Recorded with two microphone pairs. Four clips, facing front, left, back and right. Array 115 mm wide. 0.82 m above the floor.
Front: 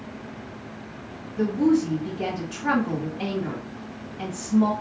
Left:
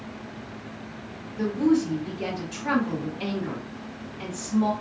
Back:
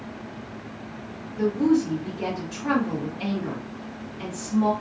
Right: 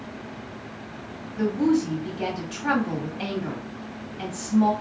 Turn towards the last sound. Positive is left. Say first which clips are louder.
# even, even
turn(degrees=-60)